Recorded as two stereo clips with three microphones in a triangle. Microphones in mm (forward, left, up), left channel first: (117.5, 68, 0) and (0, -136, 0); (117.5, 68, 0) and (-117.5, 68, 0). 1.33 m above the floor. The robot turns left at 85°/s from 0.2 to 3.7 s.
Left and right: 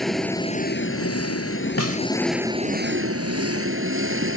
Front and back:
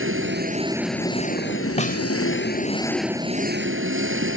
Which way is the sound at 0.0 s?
150° left.